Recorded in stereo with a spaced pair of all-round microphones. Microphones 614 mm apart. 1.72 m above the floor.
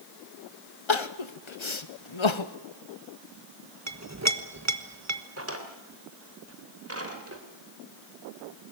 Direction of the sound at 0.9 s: 55° left (ahead or behind).